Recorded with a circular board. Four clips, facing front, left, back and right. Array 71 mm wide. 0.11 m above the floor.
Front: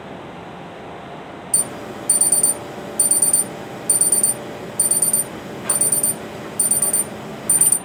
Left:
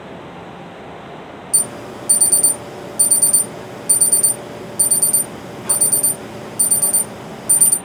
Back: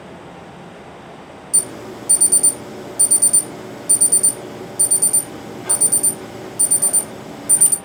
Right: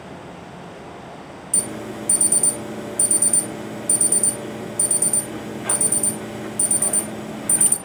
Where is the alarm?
70° right, 2 m.